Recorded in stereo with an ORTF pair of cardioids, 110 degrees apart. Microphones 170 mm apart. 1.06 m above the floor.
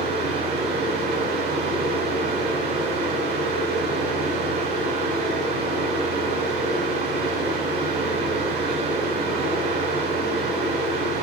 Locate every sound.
0.0 s a fan: 65° right, 2 m